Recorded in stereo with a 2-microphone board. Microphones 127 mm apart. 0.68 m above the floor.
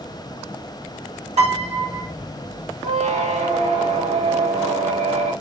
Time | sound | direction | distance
1.4 | a piano | 55° right (ahead or behind) | 1.5 m
2.8 | a squeak | 65° right (ahead or behind) | 0.7 m